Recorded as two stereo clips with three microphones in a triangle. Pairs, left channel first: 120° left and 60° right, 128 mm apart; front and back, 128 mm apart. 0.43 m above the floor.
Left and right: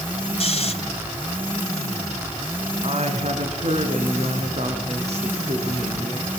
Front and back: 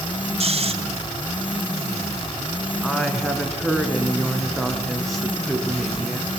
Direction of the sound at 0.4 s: 150° left.